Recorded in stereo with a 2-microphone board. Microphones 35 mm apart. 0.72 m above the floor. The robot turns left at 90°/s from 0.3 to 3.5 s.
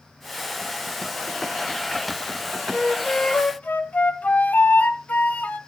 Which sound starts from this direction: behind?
A flute, at 2.7 s.